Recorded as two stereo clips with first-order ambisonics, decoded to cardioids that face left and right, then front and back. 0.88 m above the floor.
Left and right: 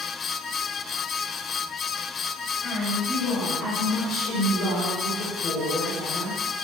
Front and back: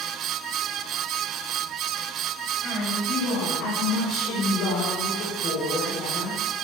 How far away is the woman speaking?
About 5 m.